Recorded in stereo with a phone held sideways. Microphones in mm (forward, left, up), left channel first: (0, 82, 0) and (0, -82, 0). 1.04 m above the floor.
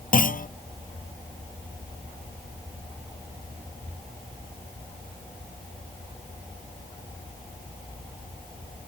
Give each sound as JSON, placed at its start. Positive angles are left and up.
{"t": 0.1, "sound": "a clunk", "side_deg": 60}